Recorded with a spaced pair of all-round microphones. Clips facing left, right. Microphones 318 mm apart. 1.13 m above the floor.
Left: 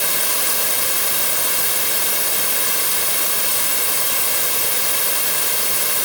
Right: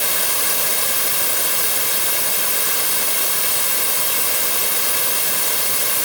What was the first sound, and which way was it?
Only background noise.